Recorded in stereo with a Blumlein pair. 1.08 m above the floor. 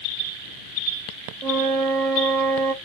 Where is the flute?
20° right, 0.6 m.